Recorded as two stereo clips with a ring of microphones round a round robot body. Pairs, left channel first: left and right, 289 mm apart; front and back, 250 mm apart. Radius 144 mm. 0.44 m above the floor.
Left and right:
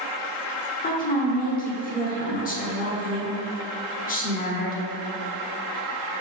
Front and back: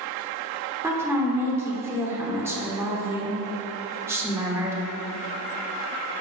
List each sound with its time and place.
0.8 s a woman speaking: 110° left, 1.2 m